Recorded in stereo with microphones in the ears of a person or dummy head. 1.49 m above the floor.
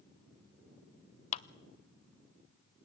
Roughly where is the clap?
Left.